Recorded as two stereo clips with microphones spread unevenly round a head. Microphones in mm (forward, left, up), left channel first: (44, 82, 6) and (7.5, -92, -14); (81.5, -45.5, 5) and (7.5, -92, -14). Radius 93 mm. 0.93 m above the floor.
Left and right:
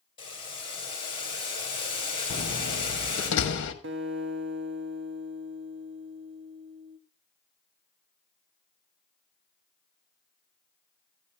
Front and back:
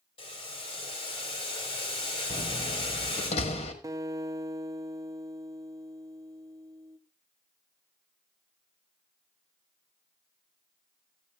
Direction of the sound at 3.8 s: 90° right.